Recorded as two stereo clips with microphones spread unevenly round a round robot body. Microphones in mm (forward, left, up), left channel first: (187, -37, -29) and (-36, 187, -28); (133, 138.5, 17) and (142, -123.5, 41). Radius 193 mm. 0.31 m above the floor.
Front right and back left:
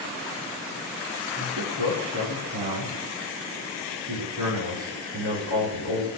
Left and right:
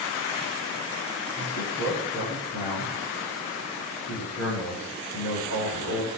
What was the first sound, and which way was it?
A man speaking, 140° left.